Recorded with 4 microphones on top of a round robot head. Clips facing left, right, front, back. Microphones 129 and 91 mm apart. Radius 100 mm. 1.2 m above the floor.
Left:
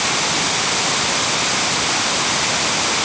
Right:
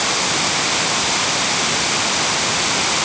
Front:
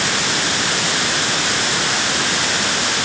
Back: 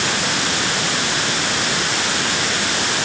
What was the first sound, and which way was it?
Only background noise.